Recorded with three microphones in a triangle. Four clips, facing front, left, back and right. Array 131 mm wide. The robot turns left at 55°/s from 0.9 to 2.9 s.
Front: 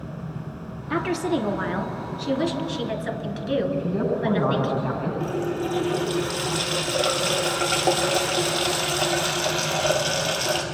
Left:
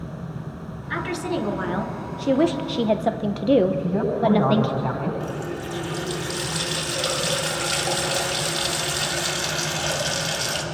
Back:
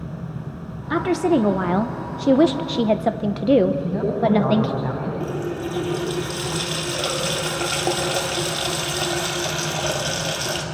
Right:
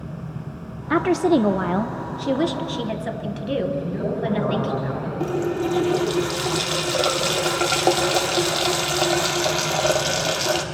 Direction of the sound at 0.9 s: 105° right.